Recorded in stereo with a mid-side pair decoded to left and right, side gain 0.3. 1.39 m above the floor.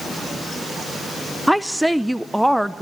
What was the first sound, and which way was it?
A woman speaking, 5° right.